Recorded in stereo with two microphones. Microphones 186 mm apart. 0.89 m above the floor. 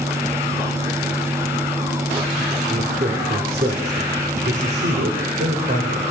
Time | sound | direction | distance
2.7 | a man speaking | 40° right (ahead or behind) | 3.5 m